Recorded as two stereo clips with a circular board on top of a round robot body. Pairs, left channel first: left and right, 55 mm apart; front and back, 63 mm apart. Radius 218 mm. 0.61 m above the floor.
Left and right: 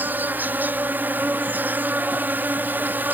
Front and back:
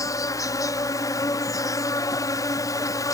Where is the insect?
30° right.